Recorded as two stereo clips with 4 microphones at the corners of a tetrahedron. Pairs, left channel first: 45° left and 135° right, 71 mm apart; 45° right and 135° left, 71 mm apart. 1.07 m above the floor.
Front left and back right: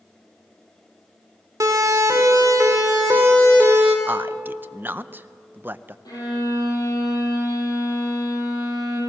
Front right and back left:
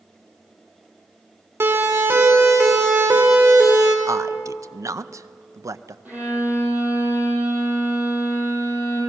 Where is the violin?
70° left, 8.5 m.